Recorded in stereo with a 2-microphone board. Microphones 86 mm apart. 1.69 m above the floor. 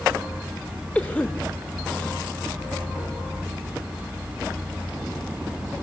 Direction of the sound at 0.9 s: 15° left (ahead or behind).